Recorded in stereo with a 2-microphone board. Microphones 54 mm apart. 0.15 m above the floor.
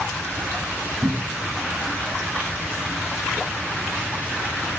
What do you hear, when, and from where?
1.0 s a cupboard door: 55° right (ahead or behind), 3.5 m